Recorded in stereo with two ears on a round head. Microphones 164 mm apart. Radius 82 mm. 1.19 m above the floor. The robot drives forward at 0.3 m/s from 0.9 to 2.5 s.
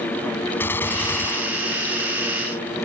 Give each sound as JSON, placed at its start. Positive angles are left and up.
{"t": 0.6, "sound": "a gunshot", "side_deg": 10}